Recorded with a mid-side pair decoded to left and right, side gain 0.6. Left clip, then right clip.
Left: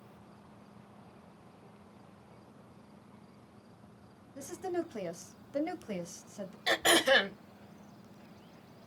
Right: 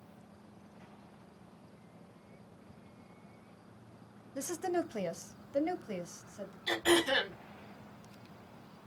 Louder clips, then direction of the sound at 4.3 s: Right 2 dB; 45° right.